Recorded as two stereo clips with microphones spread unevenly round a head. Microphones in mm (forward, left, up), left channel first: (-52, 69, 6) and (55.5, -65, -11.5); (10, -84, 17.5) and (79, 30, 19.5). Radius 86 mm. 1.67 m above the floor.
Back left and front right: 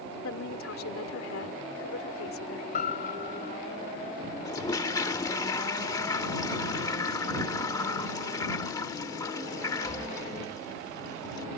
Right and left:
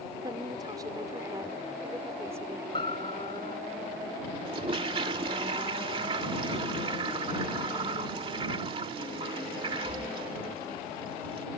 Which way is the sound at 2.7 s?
175° left.